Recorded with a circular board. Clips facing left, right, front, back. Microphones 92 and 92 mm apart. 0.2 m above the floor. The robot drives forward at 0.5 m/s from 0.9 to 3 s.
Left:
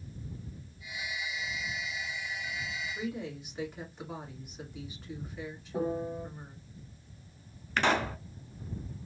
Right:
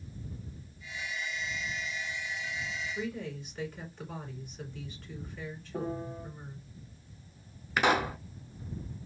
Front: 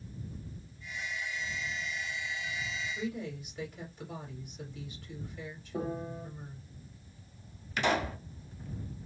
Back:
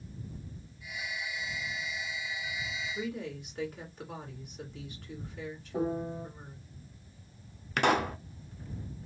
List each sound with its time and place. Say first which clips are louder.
3.0 s a woman speaking: left 1 dB, back 2 dB; 165° left, 1.7 m
5.7 s a piano: left 4 dB, back 4 dB; 155° left, 0.9 m
7.8 s a pop: right 1 dB, back 3 dB; 165° right, 0.6 m